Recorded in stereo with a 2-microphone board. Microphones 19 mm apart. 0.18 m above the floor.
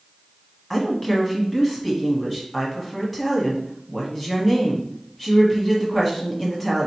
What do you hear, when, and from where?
0.7 s a woman speaking: 5° left (ahead or behind), 1.1 m